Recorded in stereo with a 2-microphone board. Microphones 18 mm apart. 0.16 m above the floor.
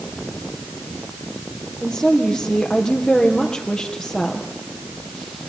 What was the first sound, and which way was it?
A woman speaking, 65° left (ahead or behind).